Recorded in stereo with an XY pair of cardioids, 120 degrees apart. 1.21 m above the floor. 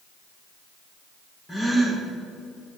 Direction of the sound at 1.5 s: 10° left.